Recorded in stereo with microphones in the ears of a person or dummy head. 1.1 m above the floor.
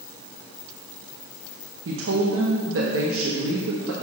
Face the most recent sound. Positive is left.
turn(degrees=-70)  # may be behind; listen again after turning